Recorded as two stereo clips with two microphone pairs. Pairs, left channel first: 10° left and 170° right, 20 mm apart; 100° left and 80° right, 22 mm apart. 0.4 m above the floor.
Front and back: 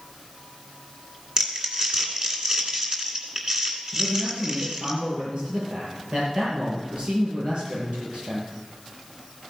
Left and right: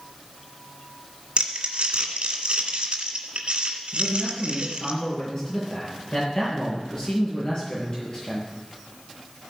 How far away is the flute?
No flute in this recording.